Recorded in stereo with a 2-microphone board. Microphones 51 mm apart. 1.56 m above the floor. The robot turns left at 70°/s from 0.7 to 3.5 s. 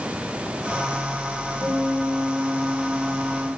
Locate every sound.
1.6 s a guitar: 35° right, 7 m; by 3.5 s 165° right, 7 m